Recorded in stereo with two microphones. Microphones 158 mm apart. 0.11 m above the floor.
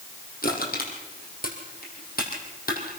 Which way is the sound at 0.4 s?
60° left (ahead or behind).